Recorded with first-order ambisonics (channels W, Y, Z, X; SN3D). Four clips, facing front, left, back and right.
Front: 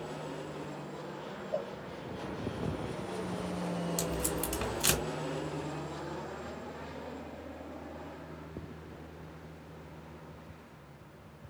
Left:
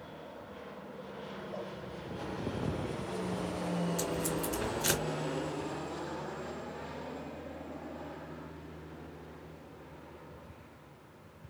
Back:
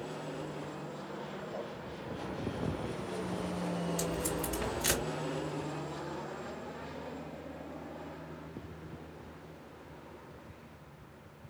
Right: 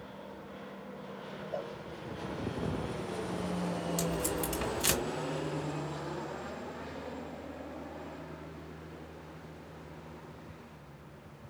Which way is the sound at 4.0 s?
30° right.